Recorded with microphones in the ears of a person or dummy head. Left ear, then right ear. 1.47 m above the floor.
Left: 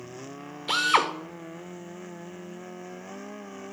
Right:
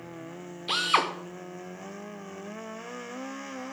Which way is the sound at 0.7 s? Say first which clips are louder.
Left 2 dB; 10° left (ahead or behind).